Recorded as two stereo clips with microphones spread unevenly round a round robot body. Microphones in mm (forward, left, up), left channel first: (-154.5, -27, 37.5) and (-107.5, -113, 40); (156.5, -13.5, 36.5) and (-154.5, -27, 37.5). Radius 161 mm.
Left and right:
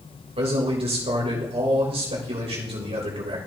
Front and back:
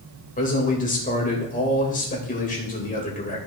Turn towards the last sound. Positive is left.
turn(degrees=-60)